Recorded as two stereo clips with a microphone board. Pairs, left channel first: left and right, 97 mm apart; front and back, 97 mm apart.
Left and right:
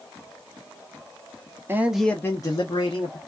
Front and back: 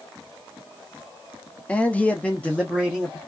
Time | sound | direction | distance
1.7 | a man speaking | 65° right | 0.7 m